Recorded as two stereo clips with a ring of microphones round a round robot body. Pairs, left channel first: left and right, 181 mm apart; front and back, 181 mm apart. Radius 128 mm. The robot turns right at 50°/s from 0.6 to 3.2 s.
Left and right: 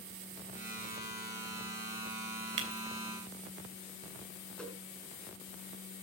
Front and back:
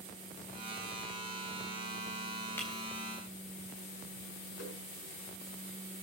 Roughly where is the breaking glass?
Right.